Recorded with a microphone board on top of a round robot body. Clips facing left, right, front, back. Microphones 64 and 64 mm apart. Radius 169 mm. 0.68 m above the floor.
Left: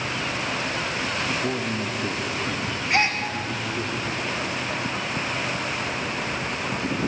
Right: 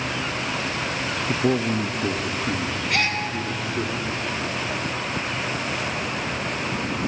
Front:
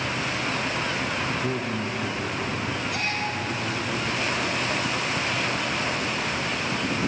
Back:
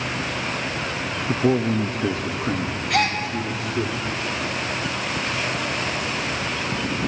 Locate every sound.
1.3 s a man speaking: 150° right, 0.8 m; by 3.9 s 160° right, 2.5 m
2.9 s a gasp: 155° left, 1.1 m